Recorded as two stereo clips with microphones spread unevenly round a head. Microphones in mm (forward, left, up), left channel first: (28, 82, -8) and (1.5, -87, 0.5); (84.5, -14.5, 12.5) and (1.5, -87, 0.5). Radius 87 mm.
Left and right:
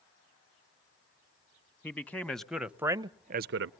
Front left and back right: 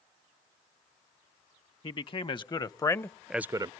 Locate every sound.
1.8 s a man speaking: straight ahead, 1.4 m; by 3.7 s 90° right, 0.5 m